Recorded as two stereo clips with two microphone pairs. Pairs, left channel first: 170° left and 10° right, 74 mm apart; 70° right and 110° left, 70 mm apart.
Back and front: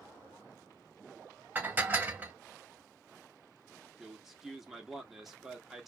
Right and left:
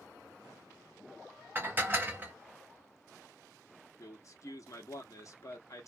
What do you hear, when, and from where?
1.6 s dishes clattering: 55° left, 0.7 m
4.0 s a man speaking: 100° right, 1.0 m